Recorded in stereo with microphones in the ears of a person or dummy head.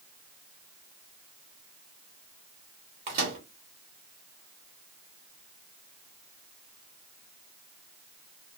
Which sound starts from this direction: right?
A microwave, at 3.1 s.